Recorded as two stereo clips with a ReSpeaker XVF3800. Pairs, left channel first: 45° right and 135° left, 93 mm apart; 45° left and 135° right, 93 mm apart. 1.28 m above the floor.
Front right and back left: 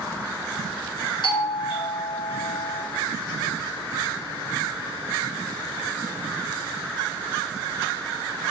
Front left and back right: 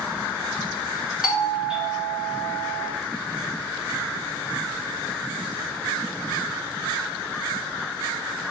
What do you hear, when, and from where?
1.2 s a doorbell: 55° right, 0.6 m